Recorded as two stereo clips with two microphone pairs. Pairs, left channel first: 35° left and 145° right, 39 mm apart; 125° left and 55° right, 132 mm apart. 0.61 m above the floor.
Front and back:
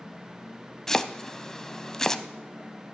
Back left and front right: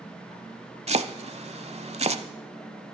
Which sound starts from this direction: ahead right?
Chopping, at 0.9 s.